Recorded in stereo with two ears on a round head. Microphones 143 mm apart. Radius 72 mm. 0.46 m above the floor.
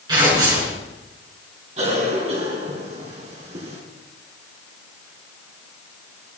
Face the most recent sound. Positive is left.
turn(degrees=-40)  # may be behind; listen again after turning